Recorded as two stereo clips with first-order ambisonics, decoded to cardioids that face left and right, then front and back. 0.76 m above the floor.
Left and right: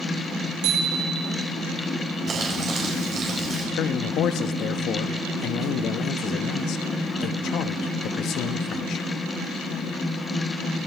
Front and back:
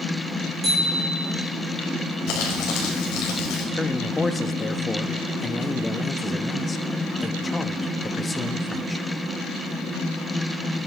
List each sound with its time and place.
0.6 s a bicycle bell: 95° right, 7 m
2.3 s crumpling: 30° right, 4.5 m
3.7 s a man speaking: 75° left, 0.8 m